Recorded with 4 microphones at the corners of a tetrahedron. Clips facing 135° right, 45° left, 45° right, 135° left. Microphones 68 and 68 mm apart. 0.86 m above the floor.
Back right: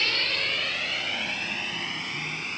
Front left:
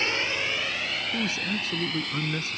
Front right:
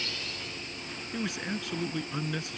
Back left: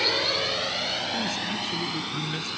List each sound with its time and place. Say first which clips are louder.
0.0 s a drone: front left 1 dB, back left 12 dB; 115° left; by 2.6 s 145° left
1.1 s a man speaking: front left 3 dB, back left 4 dB; 45° left